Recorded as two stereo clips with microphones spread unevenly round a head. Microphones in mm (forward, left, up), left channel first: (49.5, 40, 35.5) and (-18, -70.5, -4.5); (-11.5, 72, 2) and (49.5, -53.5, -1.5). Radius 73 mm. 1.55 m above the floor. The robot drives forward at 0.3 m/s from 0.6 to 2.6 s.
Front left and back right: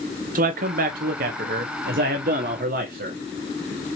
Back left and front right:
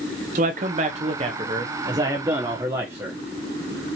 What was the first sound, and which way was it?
A man speaking, 105° right.